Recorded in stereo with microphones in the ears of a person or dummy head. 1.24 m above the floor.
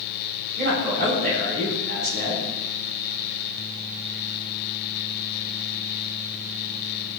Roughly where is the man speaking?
Right.